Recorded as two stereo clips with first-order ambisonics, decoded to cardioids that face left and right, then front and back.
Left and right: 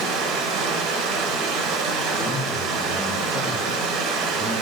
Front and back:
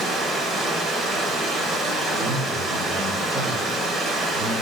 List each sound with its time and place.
0.0 s running water: 110° right, 1.0 m
2.2 s a man speaking: 145° left, 0.8 m